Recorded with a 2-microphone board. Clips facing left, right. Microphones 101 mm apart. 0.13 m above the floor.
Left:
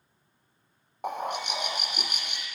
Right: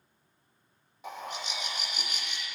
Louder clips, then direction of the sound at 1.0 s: Left 7 dB; 60° left (ahead or behind).